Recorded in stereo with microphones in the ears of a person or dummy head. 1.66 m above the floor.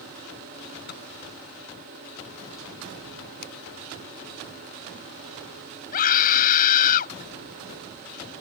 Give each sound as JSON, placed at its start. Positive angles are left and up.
{"t": 0.9, "sound": "a microwave", "side_deg": 50}
{"t": 3.4, "sound": "a finger snap", "side_deg": 65}
{"t": 5.9, "sound": "a scream", "side_deg": 50}